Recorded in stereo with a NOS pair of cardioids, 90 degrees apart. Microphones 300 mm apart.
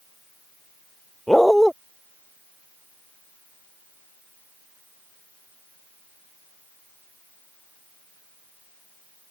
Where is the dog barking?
Straight ahead.